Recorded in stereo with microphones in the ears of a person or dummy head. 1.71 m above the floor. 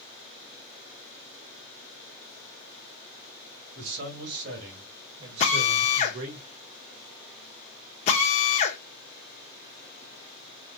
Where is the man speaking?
55° right (ahead or behind), 2 m; by 6.4 s 45° right (ahead or behind), 0.8 m.